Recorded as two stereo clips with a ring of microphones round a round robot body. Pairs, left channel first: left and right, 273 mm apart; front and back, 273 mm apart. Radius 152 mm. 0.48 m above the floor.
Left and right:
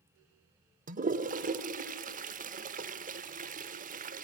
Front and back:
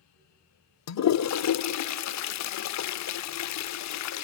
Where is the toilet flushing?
25° right, 0.6 m.